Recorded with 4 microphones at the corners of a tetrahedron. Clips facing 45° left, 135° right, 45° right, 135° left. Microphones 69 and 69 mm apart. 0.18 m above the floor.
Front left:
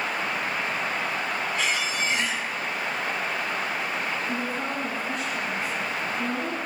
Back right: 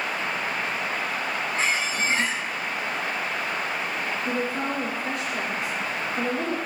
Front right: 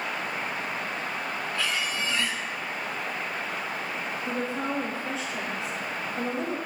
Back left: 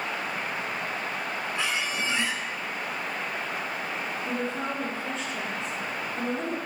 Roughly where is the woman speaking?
Behind right.